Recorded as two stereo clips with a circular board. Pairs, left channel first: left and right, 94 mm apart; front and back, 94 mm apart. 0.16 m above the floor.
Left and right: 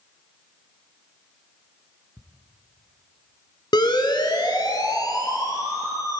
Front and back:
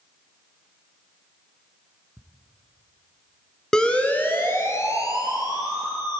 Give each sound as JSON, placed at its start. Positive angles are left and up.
{"t": 2.2, "sound": "ticking", "azimuth_deg": -120, "distance_m": 2.0}
{"t": 3.7, "sound": "a siren", "azimuth_deg": 85, "distance_m": 2.5}